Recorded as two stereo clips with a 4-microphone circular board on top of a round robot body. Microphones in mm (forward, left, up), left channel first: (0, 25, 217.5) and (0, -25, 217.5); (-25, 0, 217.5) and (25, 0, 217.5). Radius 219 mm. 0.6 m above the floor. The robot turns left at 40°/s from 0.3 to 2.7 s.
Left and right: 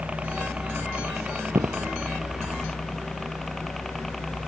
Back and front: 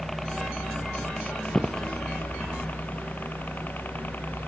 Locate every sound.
0.0 s a helicopter: 100° right; by 4.5 s 175° left
1.5 s footsteps: 90° right; by 1.9 s 105° right